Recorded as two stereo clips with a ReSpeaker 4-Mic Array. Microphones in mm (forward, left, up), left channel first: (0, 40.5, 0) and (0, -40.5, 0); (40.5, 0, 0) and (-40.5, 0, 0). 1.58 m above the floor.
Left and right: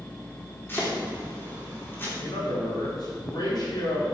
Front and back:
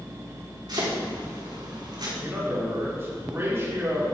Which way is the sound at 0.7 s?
150° left.